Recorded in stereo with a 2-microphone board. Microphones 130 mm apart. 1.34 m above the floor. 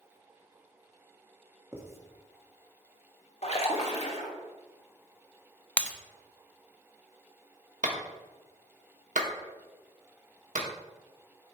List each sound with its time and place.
1.7 s writing: 20° right (ahead or behind), 1.3 m
3.4 s a splash: 55° left (ahead or behind), 1.5 m
5.8 s breaking glass: 10° left (ahead or behind), 0.6 m
7.8 s a clap: 70° right (ahead or behind), 1.2 m